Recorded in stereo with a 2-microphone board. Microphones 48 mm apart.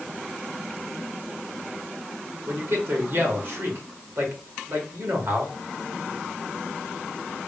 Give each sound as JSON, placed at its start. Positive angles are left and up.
{"t": 2.5, "sound": "a man speaking", "side_deg": -55, "distance_m": 1.8}